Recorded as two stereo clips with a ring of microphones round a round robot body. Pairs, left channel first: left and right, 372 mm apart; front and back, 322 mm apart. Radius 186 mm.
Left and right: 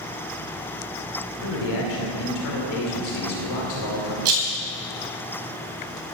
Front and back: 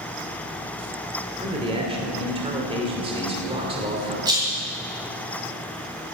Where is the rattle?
100° right, 2.5 m.